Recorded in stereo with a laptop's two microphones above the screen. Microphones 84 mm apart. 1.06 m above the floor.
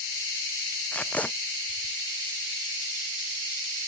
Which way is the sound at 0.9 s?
15° left (ahead or behind).